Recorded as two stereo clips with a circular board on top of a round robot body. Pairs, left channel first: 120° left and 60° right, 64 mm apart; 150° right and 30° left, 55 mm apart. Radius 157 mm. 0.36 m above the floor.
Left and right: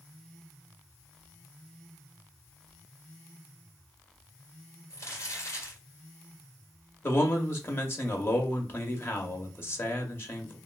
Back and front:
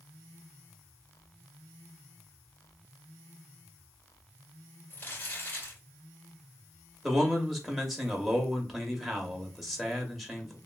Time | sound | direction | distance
4.9 | crumpling | 160° left | 2 m
7.0 | a man speaking | 120° left | 0.9 m